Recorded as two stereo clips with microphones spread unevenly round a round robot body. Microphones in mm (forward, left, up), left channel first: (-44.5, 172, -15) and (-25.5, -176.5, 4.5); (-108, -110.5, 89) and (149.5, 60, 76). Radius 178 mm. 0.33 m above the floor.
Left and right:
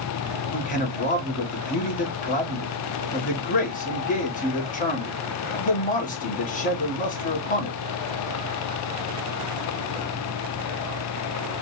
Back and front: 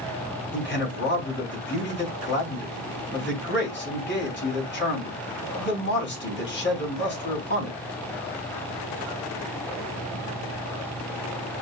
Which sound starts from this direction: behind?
A man speaking, at 0.5 s.